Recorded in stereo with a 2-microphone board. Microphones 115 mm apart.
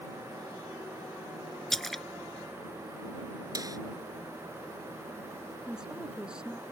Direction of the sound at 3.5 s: 35° right (ahead or behind).